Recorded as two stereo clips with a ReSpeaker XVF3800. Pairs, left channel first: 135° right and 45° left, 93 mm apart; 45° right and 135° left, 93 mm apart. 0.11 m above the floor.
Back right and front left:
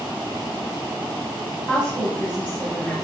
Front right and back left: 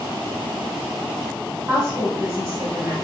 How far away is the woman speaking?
About 1.2 m.